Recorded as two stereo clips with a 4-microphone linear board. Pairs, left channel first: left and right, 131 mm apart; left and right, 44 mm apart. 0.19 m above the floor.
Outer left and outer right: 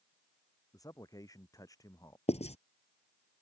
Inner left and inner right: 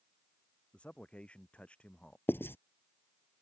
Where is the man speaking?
25° left (ahead or behind).